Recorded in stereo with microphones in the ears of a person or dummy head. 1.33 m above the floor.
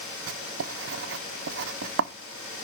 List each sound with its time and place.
0.3 s writing: 85° right, 0.7 m